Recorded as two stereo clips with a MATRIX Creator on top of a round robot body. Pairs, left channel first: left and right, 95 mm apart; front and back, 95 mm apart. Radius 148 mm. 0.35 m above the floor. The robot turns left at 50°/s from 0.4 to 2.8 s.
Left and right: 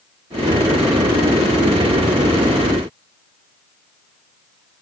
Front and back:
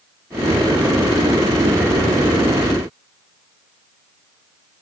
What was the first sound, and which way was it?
Only background noise.